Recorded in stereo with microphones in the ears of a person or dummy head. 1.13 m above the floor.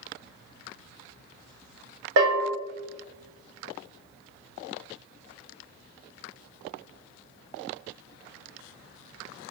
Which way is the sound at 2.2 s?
65° right (ahead or behind).